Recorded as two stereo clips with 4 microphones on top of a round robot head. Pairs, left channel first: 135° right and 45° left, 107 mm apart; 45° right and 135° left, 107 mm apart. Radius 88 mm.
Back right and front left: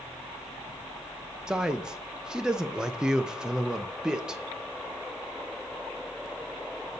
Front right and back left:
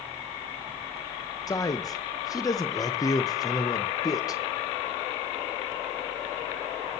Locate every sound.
1.5 s a man speaking: 30° right, 0.6 m